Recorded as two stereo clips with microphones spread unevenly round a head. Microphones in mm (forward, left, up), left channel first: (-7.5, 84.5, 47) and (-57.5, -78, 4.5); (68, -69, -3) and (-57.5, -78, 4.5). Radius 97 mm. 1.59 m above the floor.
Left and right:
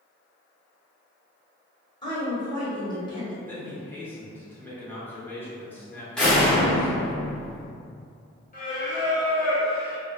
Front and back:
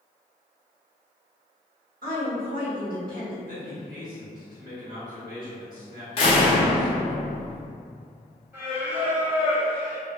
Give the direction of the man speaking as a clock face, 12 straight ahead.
7 o'clock.